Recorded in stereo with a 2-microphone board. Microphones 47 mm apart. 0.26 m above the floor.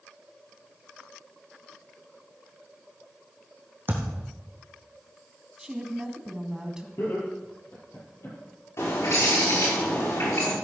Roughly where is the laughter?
Left.